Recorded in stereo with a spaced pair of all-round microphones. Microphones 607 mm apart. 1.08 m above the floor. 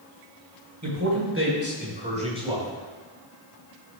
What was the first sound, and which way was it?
A man speaking, 30° right (ahead or behind).